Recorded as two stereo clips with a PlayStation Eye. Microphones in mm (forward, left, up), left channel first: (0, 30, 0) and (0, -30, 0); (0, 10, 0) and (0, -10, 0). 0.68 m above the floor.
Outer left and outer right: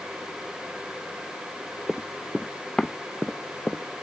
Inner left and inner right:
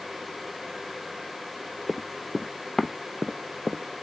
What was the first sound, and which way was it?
Running footsteps, centre (ahead or behind).